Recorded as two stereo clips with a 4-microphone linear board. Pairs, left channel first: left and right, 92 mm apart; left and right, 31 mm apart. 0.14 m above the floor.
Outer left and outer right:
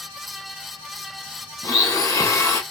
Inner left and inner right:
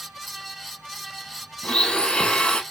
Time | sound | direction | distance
1.6 | a blender | 35° left (ahead or behind) | 0.7 m